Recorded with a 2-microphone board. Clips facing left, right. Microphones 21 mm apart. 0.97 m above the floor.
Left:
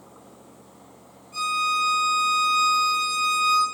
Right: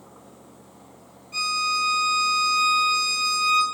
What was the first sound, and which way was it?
A violin, 70° right (ahead or behind).